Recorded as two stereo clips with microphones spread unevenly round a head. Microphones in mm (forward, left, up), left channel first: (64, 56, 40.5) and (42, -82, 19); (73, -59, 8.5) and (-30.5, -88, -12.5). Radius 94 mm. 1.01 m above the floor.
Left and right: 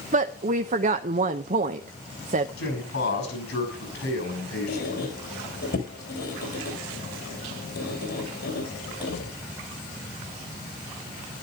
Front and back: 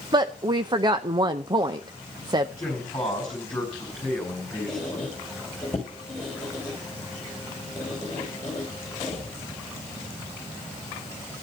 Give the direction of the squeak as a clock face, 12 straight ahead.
9 o'clock.